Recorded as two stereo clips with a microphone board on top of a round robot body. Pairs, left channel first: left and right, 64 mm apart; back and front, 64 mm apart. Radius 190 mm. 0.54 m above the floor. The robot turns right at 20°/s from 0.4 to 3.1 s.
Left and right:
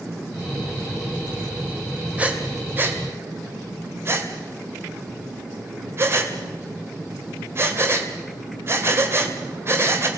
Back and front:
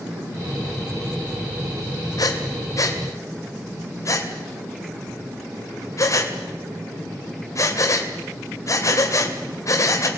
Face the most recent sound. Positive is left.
turn(degrees=-140)